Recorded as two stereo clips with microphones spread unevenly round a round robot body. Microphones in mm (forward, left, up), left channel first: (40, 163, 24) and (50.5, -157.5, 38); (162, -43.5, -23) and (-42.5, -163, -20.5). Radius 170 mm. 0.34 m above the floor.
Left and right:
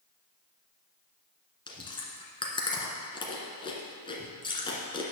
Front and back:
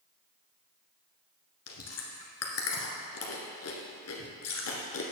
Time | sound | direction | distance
1.7 | chewing | 15° left | 1.6 m